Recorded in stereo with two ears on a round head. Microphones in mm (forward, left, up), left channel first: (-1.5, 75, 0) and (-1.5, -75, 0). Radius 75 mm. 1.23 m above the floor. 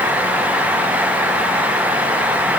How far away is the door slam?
No door slam in this recording.